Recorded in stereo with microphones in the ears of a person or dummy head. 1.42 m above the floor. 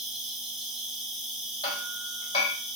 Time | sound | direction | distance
0.0 | an insect | 5° right (ahead or behind) | 0.9 m
1.6 | hammering | 25° left (ahead or behind) | 2.0 m